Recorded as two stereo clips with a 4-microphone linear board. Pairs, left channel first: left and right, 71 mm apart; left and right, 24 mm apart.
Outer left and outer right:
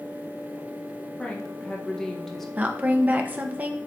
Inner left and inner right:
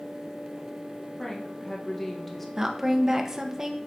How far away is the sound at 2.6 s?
About 1.0 m.